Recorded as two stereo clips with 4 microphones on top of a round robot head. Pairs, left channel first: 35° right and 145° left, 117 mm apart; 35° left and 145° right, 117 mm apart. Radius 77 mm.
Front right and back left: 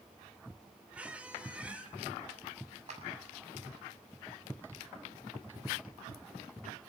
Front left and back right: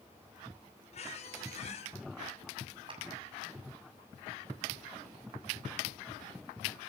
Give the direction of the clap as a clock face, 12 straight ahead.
6 o'clock.